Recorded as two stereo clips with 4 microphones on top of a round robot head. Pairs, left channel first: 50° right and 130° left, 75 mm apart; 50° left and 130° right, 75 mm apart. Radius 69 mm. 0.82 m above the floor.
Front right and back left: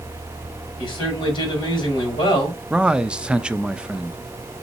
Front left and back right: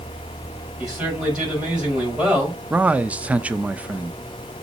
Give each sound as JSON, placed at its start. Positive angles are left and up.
{"t": 0.8, "sound": "a man speaking", "azimuth_deg": -50, "distance_m": 5.0}
{"t": 2.7, "sound": "a man speaking", "azimuth_deg": -170, "distance_m": 0.6}